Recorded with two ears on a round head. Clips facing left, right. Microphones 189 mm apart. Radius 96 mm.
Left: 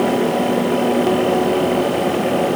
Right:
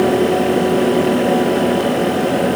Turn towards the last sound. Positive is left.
No sound to turn to.